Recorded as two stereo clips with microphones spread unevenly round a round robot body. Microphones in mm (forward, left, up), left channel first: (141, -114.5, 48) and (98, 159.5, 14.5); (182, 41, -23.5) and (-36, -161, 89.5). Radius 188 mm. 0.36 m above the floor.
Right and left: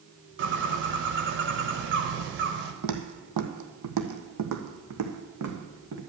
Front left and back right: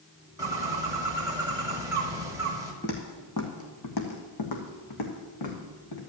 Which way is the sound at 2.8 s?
115° left.